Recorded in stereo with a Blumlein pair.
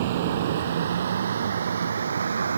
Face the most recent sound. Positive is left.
turn(degrees=-70)